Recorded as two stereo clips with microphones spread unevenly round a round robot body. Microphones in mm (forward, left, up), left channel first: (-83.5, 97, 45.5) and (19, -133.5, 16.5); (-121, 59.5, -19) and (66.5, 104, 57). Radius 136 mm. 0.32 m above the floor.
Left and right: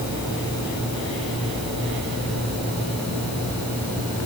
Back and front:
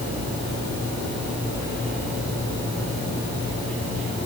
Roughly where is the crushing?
I don't hear crushing.